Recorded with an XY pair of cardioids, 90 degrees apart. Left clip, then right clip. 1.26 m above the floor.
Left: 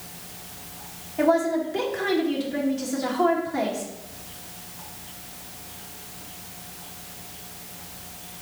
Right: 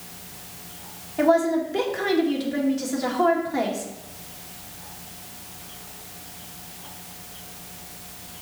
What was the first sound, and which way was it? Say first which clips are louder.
A woman speaking: right 2 dB; 30° right.